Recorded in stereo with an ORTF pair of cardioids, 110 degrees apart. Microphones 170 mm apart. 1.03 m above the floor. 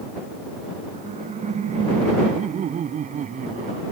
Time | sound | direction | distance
0.9 | laughter | 45° right | ?